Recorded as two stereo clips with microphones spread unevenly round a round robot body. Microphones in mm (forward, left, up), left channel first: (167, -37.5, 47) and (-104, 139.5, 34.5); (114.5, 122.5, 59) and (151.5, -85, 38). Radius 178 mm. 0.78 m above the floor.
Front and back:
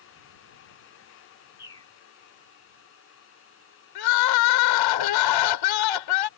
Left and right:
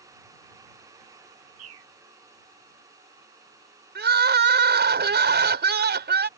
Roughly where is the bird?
Right.